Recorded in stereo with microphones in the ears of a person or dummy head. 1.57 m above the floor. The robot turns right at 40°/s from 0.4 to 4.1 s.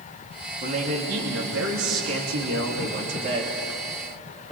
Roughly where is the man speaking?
Behind right.